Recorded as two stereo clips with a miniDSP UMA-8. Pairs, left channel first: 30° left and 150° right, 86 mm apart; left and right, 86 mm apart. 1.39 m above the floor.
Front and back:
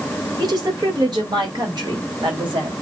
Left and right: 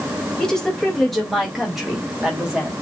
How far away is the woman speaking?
About 2 m.